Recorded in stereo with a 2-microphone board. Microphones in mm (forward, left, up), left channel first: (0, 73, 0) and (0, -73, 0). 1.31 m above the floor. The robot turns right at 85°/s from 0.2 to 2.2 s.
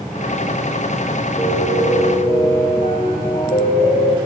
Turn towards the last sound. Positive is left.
turn(degrees=100)